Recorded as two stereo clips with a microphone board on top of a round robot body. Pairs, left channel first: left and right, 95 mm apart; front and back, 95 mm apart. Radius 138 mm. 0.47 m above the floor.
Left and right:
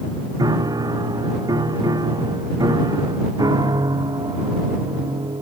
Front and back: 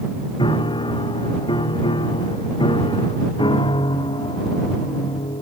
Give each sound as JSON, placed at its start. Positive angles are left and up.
{"t": 0.4, "sound": "a piano", "azimuth_deg": -40}